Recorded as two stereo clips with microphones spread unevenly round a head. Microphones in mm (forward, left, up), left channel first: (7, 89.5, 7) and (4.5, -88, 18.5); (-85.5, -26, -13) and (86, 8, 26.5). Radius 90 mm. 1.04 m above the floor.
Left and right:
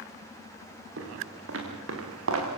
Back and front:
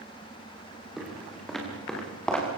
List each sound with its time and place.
1.0 s footsteps: 75° right, 6.5 m; by 2.5 s 80° right, 6 m